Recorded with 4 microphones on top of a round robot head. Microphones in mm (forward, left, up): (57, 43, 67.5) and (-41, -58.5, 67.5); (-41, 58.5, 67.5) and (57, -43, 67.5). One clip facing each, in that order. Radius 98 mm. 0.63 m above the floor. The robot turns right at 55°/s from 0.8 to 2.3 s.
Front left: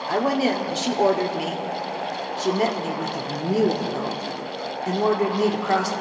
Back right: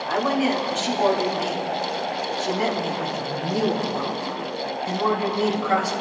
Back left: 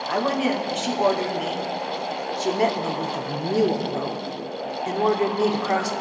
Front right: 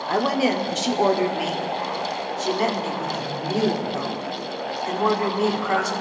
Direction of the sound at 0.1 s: Straight ahead.